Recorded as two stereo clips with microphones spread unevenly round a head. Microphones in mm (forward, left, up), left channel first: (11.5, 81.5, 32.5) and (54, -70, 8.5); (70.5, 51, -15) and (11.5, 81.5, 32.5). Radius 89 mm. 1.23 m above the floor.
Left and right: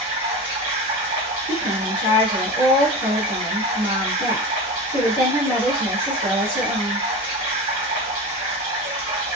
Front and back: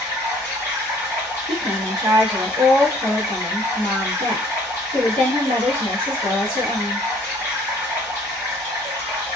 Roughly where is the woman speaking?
Behind.